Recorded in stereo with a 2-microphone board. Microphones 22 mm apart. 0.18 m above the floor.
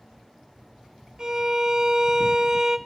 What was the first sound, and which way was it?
A violin, 35° right (ahead or behind).